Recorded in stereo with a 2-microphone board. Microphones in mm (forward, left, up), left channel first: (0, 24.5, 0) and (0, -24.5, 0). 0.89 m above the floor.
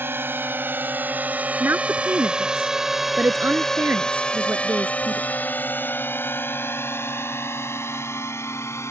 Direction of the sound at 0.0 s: 50° right (ahead or behind).